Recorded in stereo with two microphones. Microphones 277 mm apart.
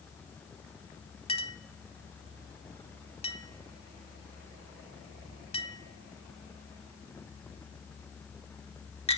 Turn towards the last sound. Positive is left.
turn(degrees=20)  # may be behind; listen again after turning